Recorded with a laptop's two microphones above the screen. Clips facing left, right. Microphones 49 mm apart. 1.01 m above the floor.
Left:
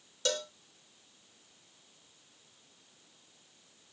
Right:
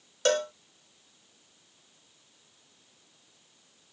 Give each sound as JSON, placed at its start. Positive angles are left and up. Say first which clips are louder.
{"t": 0.2, "sound": "a cowbell", "louder": "right 9 dB", "side_deg": -45}